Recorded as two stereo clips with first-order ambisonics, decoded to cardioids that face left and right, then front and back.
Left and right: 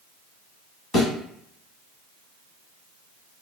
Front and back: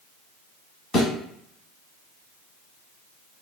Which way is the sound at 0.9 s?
40° left.